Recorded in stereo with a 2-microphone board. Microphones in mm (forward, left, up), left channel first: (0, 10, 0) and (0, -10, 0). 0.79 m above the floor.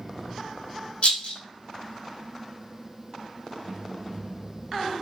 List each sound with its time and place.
1.0 s a rattle: 85° left, 0.6 m